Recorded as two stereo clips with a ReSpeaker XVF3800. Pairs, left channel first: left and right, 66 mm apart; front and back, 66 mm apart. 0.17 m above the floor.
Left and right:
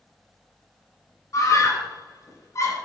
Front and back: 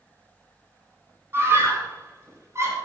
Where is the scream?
125° left, 9 m; by 2.7 s 135° left, 10.5 m.